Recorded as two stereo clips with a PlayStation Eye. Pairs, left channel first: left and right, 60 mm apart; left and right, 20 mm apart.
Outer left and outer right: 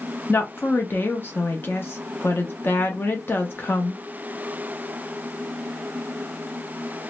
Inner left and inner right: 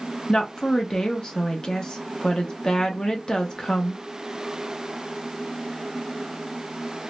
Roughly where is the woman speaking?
Left.